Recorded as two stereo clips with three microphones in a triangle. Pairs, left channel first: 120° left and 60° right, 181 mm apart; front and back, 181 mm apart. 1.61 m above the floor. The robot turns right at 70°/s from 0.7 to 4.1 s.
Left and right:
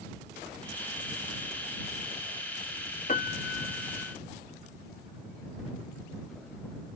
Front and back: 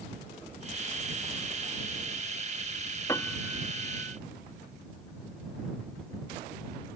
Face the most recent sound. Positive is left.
turn(degrees=145)